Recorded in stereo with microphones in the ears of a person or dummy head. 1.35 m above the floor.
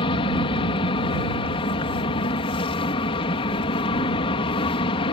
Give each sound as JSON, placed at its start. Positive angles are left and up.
{"t": 0.0, "sound": "an aircraft", "side_deg": 35}